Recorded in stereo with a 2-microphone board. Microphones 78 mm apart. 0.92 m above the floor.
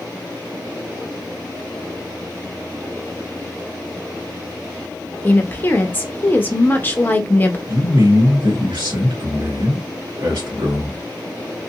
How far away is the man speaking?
About 1.8 m.